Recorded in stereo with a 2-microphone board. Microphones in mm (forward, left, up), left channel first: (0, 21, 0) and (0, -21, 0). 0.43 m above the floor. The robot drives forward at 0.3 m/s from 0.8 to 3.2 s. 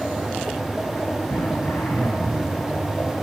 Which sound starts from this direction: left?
Throat clearing, at 1.3 s.